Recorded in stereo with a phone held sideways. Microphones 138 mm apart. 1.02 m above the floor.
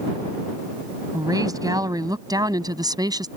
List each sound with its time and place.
1.1 s a woman speaking: 25° right (ahead or behind); by 3.3 s 30° right (ahead or behind)